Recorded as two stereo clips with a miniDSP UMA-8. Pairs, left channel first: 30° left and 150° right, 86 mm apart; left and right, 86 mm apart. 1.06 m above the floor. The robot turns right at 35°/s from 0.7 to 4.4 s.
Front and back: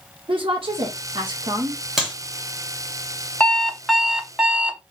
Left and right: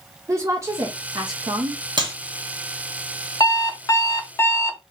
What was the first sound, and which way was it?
A woman speaking, 140° right.